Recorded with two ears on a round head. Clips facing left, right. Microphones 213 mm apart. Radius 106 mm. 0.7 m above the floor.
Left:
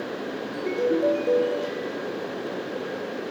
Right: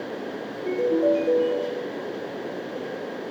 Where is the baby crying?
I don't hear a baby crying.